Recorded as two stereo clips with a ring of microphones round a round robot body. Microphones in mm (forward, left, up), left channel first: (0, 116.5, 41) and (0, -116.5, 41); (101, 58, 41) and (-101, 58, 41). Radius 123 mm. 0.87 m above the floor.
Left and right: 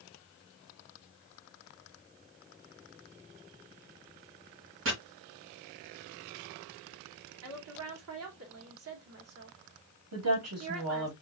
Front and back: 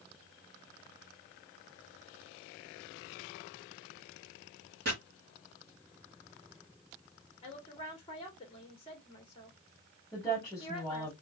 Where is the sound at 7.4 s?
65° right, 1.9 m.